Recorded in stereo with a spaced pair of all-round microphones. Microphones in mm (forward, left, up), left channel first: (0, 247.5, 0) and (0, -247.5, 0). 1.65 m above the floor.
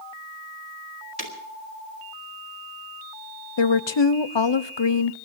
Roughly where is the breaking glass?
Right.